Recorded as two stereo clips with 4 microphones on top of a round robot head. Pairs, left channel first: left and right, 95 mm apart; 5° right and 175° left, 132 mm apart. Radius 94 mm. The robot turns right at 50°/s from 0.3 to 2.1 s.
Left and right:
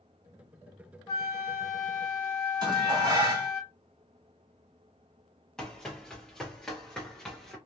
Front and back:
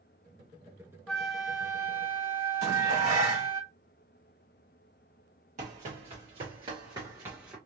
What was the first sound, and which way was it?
A flute, 75° left.